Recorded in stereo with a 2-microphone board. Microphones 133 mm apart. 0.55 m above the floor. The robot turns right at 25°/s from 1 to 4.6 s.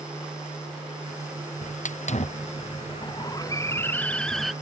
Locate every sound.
1.6 s a hiss: 70° left (ahead or behind); by 4.5 s centre (ahead or behind)